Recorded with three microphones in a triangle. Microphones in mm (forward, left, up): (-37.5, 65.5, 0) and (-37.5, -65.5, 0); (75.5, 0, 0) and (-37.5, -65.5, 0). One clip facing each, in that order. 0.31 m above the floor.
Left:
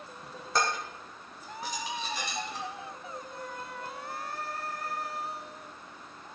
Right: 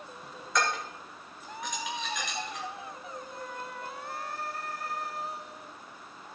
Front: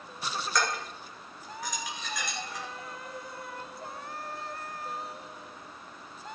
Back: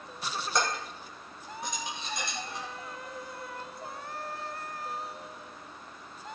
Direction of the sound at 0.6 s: 145° left.